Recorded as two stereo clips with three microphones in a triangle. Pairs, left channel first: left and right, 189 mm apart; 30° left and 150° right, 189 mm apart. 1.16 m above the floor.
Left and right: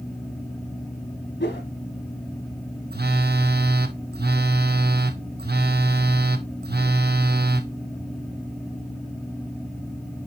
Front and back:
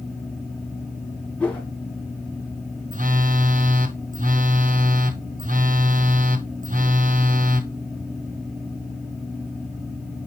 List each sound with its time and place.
1.4 s a whoosh: 110° left, 1.7 m
2.9 s a phone buzzing: 110° right, 0.7 m